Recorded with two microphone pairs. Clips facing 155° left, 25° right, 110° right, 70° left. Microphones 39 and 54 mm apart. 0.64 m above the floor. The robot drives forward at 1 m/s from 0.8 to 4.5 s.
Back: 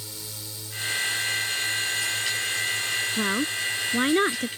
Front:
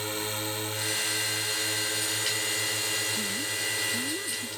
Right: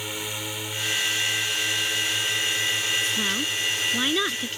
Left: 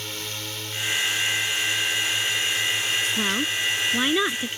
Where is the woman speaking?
140° left; by 4.5 s 145° left.